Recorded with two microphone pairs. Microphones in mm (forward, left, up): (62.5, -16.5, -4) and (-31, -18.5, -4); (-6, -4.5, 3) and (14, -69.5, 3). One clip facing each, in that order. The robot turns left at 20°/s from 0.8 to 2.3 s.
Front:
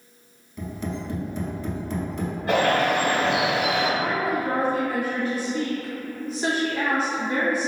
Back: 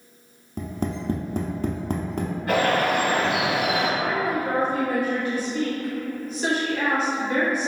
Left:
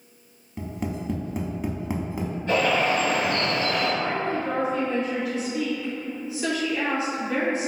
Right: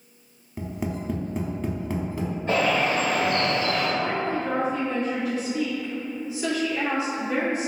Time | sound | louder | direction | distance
0.6 | tapping | back 2 dB, even | 155° right | 0.5 m
2.5 | a bird | front 1 dB, left 1 dB | 50° right | 1.8 m
4.0 | a woman speaking | even, even | straight ahead | 1.7 m